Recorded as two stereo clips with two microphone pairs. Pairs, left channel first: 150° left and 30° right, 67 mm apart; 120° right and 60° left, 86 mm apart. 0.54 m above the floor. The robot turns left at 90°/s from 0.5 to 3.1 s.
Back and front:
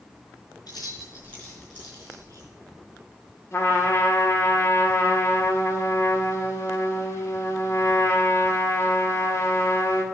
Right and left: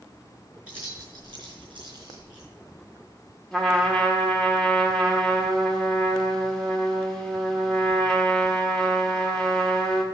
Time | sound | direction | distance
0.7 | keys jangling | 135° left | 4.5 m
3.5 | a trumpet | 160° left | 1.7 m